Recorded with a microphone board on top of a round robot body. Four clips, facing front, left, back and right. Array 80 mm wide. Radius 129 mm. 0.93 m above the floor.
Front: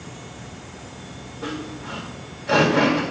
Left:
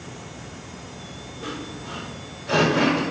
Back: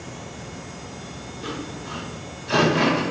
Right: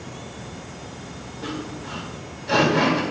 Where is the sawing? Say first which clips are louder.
Right 2 dB, front 2 dB; 10° left, 3 m.